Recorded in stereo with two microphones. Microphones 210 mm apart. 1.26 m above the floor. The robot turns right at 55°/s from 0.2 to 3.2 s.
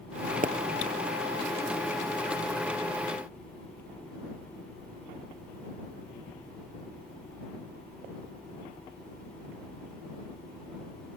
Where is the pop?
40° right (ahead or behind).